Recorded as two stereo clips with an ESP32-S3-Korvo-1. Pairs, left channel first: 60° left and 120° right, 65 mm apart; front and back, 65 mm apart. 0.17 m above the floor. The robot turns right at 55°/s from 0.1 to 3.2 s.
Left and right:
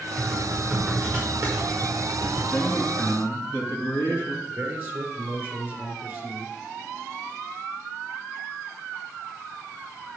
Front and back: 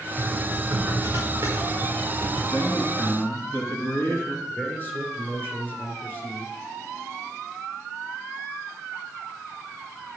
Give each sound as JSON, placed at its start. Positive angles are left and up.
{"t": 0.2, "sound": "typing on a keyboard", "azimuth_deg": 140, "distance_m": 5.5}
{"t": 2.5, "sound": "a man speaking", "azimuth_deg": 0, "distance_m": 2.5}
{"t": 4.5, "sound": "a man speaking", "azimuth_deg": -60, "distance_m": 2.5}